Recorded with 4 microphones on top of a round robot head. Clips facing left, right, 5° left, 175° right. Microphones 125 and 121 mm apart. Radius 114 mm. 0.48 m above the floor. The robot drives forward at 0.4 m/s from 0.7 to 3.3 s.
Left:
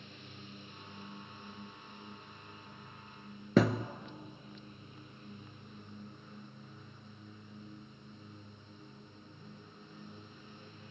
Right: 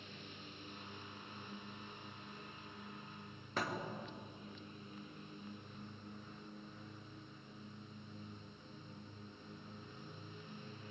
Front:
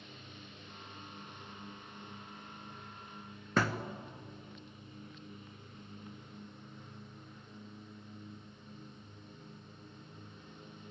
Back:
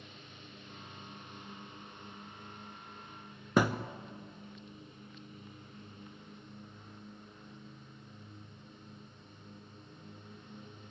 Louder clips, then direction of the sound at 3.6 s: Left 13 dB, back 4 dB; 110° left.